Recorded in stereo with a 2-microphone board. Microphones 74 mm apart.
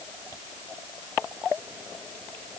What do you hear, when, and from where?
Only background noise.